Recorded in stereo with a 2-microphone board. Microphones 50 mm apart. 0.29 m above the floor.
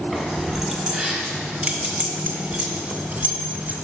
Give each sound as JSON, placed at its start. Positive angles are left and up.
{"t": 0.1, "sound": "keys jangling", "side_deg": -5, "distance_m": 1.9}